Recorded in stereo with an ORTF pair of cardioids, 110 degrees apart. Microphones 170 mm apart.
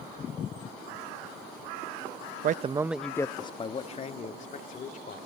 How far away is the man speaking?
About 0.7 m.